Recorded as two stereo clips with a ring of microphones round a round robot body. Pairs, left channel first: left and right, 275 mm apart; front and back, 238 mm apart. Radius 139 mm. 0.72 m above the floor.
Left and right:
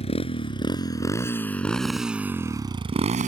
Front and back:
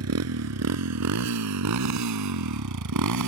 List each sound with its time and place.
0.0 s a motorcycle: 160° left; by 3.3 s 155° right